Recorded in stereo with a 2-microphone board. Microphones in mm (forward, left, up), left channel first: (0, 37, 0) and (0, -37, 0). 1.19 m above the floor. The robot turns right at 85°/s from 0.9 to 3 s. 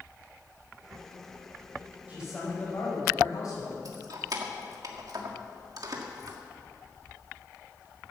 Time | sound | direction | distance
2.1 | a man speaking | 25° right | 6 m
3.9 | keys jangling | 60° right (ahead or behind) | 1.6 m